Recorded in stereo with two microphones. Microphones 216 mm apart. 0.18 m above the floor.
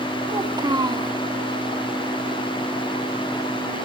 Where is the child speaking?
20° right (ahead or behind), 0.6 m.